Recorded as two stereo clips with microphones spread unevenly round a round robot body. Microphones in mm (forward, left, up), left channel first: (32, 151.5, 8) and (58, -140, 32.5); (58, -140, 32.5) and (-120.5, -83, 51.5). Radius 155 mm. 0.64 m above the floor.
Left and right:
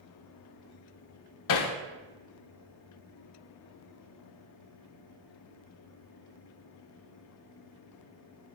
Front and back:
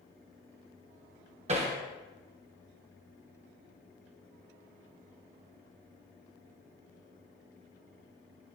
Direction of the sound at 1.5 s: 100° left.